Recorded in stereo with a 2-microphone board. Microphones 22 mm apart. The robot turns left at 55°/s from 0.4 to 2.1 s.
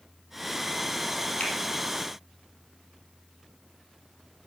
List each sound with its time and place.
1.4 s a finger snap: 60° left (ahead or behind), 3.5 m; by 1.5 s 55° left (ahead or behind), 3.5 m